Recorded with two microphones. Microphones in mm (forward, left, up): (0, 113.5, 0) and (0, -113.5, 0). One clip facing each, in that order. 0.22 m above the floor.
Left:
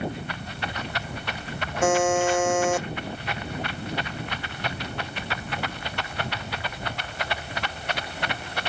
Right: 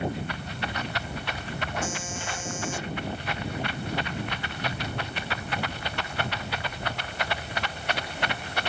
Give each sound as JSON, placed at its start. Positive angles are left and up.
{"t": 1.8, "sound": "a buzzer", "side_deg": 70}